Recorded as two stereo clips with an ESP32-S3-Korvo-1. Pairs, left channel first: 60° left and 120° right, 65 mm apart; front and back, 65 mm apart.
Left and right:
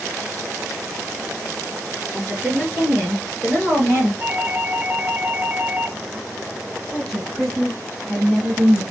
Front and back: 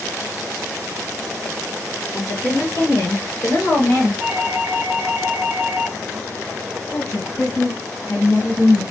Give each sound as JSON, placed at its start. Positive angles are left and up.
{"t": 2.1, "sound": "a woman speaking", "azimuth_deg": -30, "distance_m": 2.5}
{"t": 4.2, "sound": "a doorbell", "azimuth_deg": -155, "distance_m": 1.5}
{"t": 6.9, "sound": "a woman speaking", "azimuth_deg": -30, "distance_m": 3.0}